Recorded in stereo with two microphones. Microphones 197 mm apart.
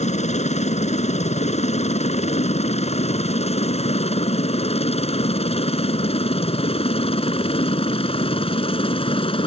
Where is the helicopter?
35° left (ahead or behind); by 9.5 s 30° left (ahead or behind).